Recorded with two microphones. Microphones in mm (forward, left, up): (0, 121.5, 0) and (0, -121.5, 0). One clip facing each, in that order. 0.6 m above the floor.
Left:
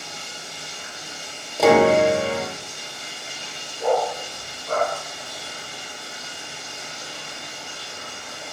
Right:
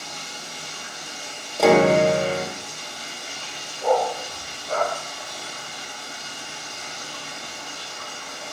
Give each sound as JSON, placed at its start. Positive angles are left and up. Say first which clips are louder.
{"t": 0.0, "sound": "running water", "louder": "even", "side_deg": 25, "distance_m": 0.8}
{"t": 1.6, "sound": "a piano", "louder": "left 1 dB", "side_deg": 0, "distance_m": 0.6}
{"t": 3.8, "sound": "a dog barking", "louder": "even", "side_deg": 70, "distance_m": 1.3}